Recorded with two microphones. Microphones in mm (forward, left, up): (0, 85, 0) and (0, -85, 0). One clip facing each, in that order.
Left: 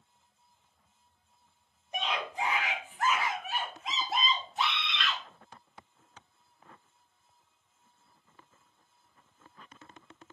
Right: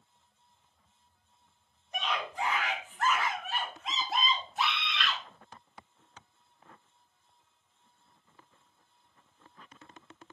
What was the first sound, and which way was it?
A scream, 20° left (ahead or behind).